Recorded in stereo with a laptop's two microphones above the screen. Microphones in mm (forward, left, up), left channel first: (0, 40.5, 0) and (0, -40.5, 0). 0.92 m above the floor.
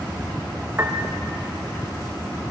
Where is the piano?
30° right (ahead or behind), 0.5 m.